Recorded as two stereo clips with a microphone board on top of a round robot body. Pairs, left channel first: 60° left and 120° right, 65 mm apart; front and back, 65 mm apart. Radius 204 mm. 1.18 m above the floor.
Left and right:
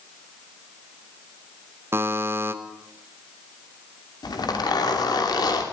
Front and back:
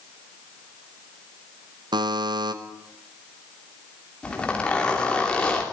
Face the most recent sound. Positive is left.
turn(degrees=75)